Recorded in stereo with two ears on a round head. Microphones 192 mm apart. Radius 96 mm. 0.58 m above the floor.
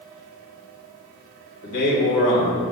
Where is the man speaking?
60° left (ahead or behind), 3.5 m.